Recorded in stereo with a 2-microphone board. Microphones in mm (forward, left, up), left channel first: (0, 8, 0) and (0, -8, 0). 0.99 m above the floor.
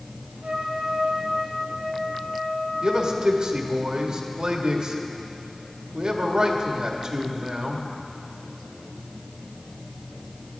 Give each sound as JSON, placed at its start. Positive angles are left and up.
{"t": 0.4, "sound": "a trumpet", "side_deg": -70, "distance_m": 2.0}
{"t": 2.8, "sound": "a man speaking", "side_deg": -60, "distance_m": 1.7}